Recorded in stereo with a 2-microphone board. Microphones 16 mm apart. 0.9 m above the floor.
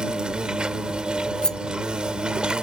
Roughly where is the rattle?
Left.